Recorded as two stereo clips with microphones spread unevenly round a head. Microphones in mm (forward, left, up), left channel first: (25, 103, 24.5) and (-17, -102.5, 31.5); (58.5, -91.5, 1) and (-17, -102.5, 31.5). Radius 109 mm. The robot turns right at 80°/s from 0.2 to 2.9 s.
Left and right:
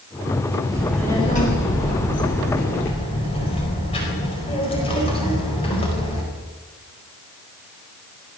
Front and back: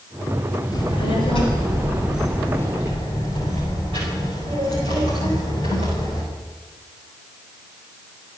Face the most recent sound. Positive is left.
turn(degrees=145)